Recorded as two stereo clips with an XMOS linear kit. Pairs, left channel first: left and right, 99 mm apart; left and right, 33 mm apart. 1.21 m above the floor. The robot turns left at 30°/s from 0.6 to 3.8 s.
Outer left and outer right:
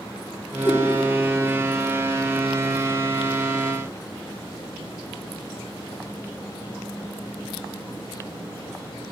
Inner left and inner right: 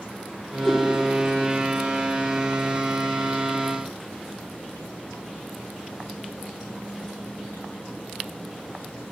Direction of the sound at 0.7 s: 25° left (ahead or behind).